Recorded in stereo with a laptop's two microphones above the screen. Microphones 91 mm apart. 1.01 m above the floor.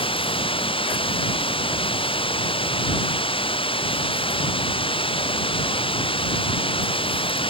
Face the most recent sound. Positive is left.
turn(degrees=75)  # may be behind; listen again after turning